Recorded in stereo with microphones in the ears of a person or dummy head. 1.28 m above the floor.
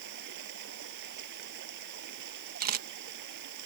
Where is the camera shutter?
45° right (ahead or behind).